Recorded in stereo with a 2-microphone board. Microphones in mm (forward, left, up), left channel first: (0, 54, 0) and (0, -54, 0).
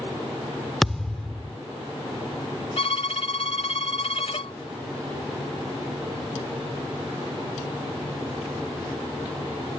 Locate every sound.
0.8 s a thud: centre (ahead or behind)
2.8 s a violin: 65° left (ahead or behind)